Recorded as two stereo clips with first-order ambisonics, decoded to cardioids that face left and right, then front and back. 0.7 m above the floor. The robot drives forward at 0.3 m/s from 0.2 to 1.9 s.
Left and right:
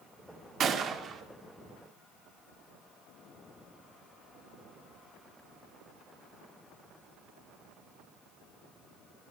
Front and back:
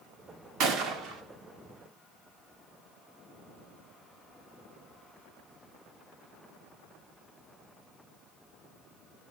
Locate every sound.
0.6 s a gunshot: 145° right, 1.7 m